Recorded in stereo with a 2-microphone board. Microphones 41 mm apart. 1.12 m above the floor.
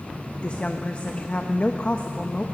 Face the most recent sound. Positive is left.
turn(degrees=35)  # may be behind; listen again after turning